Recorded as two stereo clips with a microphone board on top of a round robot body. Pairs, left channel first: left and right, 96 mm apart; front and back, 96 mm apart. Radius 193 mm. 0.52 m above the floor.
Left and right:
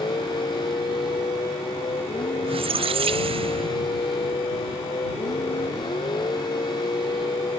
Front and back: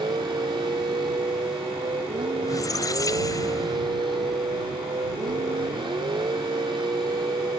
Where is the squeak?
60° right.